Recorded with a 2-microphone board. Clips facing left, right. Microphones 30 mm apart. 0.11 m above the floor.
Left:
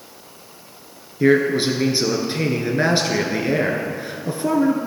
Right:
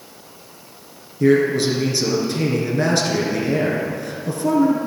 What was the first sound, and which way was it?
A man speaking, 25° left (ahead or behind).